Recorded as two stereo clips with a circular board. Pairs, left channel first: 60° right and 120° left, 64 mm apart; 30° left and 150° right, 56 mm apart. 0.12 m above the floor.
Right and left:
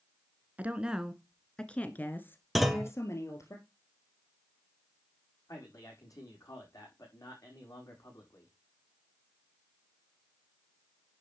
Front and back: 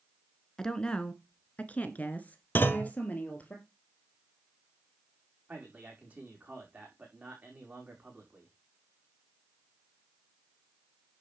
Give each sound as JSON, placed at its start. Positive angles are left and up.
{"t": 0.6, "sound": "a woman speaking", "azimuth_deg": 90, "distance_m": 1.2}
{"t": 2.5, "sound": "a clunk", "azimuth_deg": 30, "distance_m": 1.1}
{"t": 5.5, "sound": "a man speaking", "azimuth_deg": -90, "distance_m": 5.5}